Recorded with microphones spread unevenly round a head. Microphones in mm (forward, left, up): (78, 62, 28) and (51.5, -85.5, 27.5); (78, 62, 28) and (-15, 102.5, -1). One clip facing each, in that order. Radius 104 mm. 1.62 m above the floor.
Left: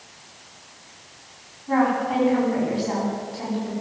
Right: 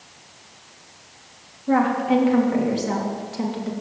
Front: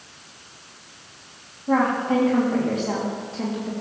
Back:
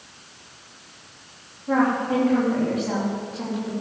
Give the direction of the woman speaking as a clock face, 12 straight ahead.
3 o'clock.